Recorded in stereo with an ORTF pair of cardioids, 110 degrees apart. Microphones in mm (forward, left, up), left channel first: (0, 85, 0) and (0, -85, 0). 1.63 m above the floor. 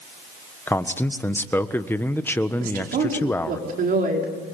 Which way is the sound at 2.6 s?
60° right.